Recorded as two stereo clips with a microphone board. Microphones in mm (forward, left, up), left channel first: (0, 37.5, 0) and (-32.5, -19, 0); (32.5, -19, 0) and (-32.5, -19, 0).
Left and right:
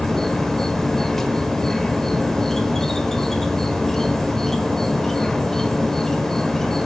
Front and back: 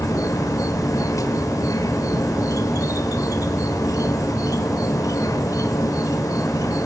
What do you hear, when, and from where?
0.0 s an insect: 25° right, 1.2 m